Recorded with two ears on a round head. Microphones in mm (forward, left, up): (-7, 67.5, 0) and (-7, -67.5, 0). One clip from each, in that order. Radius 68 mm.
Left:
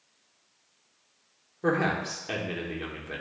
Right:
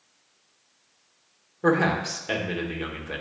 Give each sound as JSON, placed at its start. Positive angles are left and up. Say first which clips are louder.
{"t": 1.6, "sound": "a man speaking", "louder": "right 4 dB", "side_deg": -10, "distance_m": 1.0}